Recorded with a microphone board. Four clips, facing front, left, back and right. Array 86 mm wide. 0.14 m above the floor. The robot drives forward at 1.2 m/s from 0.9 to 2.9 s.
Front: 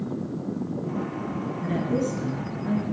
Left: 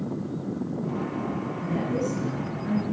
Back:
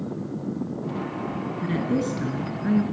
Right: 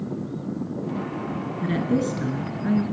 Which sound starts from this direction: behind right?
A woman speaking, at 1.6 s.